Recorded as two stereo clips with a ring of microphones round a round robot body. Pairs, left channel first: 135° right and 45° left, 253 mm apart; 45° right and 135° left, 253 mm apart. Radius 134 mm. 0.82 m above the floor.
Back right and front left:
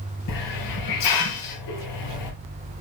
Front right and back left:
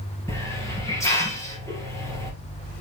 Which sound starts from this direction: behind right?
A hiss, at 0.3 s.